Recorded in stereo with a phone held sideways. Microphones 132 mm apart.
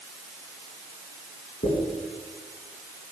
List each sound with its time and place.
1.6 s a dropped coin: 65° left (ahead or behind), 5 m